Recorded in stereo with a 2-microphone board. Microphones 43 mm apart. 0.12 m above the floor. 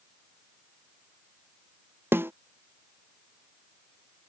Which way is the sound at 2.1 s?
65° right (ahead or behind).